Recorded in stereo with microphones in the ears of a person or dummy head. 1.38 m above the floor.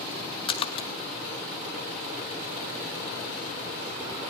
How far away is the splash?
About 0.6 m.